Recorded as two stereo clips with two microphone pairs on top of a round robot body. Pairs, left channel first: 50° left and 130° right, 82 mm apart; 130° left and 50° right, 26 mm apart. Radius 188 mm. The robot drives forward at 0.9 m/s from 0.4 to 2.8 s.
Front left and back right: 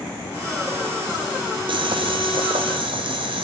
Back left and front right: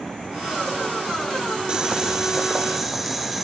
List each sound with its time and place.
1.7 s boiling: 110° right, 1.5 m; by 3.4 s 135° right, 2 m